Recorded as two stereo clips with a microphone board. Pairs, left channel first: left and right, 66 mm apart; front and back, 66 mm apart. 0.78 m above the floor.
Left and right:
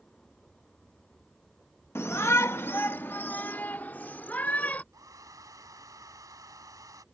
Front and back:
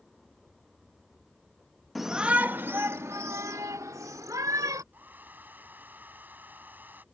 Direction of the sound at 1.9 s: 90° left.